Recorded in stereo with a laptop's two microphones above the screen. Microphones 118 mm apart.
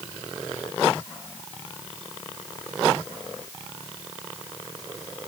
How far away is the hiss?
No hiss in this recording.